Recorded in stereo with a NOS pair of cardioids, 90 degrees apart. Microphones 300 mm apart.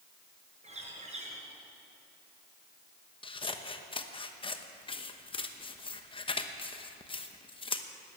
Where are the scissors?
15° left, 1.0 m.